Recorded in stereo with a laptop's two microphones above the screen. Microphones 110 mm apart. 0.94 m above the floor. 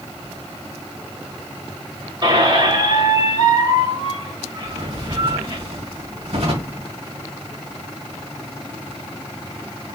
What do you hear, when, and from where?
2.2 s a squeak: 45° right (ahead or behind), 2.5 m
4.6 s a drawer: 60° right (ahead or behind), 2.5 m